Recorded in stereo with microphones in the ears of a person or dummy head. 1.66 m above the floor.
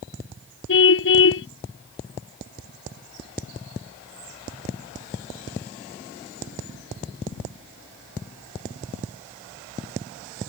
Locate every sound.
0.7 s a car horn: 70° left (ahead or behind)